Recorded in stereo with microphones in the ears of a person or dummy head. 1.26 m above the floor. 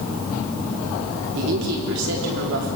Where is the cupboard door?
No cupboard door in this recording.